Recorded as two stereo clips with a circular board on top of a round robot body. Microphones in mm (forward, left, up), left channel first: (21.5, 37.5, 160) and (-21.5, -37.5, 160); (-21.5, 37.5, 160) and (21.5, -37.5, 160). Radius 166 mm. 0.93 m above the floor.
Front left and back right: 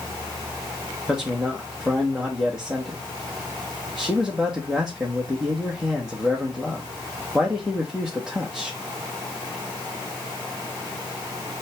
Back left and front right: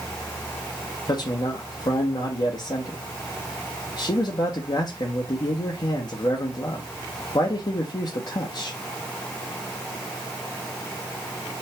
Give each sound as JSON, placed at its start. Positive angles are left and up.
{"t": 1.1, "sound": "a man speaking", "azimuth_deg": 150, "distance_m": 1.2}